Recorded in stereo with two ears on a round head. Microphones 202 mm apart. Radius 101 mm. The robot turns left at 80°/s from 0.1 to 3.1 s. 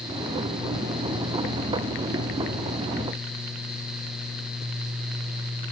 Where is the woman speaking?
No woman speaking in this recording.